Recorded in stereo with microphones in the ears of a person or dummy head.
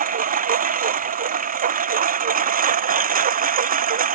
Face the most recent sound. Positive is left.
turn(degrees=-35)  # may be behind; listen again after turning